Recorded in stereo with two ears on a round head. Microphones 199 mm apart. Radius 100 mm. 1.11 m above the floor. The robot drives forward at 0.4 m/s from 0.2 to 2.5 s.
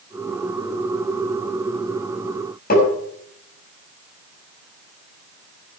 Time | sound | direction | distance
2.7 | tapping | 40° left (ahead or behind) | 6.5 m